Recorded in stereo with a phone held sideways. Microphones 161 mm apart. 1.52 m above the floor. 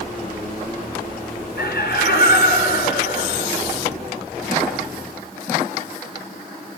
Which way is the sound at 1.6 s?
80° left.